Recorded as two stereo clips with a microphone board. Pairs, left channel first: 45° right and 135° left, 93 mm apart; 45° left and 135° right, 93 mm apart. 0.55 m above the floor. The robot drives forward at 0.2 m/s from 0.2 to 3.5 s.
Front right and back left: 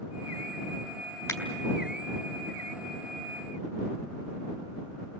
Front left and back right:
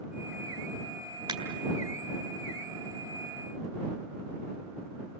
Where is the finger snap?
110° right, 3.5 m.